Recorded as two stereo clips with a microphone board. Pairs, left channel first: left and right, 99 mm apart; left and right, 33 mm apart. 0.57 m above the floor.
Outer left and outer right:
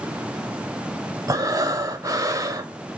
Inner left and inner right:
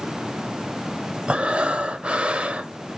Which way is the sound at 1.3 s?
35° right (ahead or behind).